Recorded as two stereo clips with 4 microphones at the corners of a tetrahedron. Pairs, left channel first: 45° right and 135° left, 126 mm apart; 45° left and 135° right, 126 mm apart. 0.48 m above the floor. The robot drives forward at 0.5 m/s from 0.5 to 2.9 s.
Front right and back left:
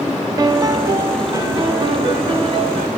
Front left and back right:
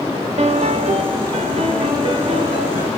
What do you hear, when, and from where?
0.4 s a piano: 165° right, 0.6 m; by 2.9 s 175° right, 1.7 m